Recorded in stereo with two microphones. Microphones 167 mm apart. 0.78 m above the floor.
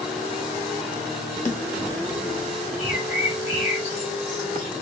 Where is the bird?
45° left (ahead or behind), 2 m.